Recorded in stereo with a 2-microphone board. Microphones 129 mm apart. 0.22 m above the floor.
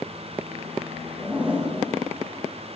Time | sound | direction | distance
1.2 | a zipper | 15° right (ahead or behind) | 7 m